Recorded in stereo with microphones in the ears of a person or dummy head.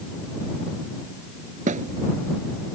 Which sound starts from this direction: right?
A thud, at 1.7 s.